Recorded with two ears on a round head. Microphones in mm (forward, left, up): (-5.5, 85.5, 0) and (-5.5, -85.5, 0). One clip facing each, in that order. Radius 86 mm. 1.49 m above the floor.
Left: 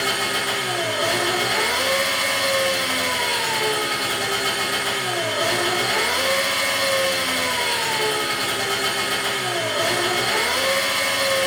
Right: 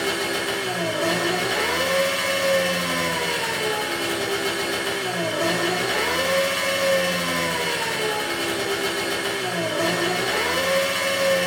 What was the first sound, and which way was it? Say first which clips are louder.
An engine running: right 1 dB; 20° right (ahead or behind).